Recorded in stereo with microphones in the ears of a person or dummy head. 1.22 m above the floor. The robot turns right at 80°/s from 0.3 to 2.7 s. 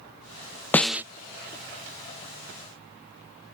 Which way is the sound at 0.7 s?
10° left (ahead or behind).